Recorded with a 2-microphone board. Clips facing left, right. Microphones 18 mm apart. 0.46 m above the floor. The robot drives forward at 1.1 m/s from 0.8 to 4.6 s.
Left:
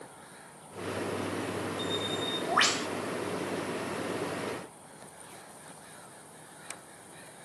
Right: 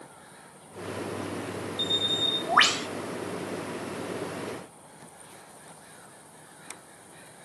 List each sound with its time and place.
1.8 s a bird: 55° right (ahead or behind), 0.7 m; by 2.9 s 25° right (ahead or behind), 1.3 m